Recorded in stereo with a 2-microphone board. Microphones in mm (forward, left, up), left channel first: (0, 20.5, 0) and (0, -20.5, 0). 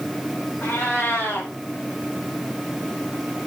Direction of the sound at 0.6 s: 50° left (ahead or behind).